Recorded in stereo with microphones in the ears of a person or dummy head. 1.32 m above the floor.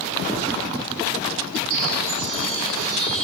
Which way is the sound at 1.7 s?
75° right (ahead or behind).